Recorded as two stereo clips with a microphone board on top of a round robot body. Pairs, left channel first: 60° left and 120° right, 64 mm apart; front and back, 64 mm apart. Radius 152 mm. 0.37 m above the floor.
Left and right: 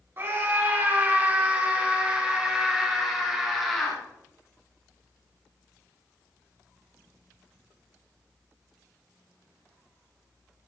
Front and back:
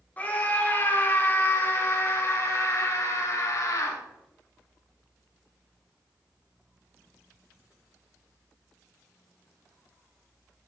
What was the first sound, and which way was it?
A scream, 65° right.